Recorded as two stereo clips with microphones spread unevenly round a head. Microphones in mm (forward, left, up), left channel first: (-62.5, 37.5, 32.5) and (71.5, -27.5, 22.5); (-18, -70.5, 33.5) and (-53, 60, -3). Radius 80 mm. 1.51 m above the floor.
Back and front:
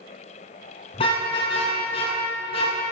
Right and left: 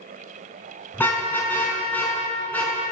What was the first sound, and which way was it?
A car horn, 150° right.